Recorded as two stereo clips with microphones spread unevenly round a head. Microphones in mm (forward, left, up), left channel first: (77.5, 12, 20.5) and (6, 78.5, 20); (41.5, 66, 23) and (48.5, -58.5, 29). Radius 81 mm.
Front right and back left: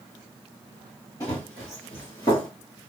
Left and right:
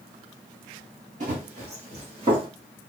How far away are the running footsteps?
About 1.9 m.